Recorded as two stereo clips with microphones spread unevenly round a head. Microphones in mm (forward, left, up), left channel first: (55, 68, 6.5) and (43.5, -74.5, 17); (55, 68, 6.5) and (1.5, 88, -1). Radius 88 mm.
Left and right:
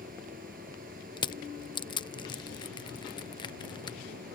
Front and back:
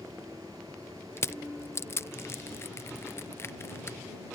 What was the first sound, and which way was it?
A fan, 140° right.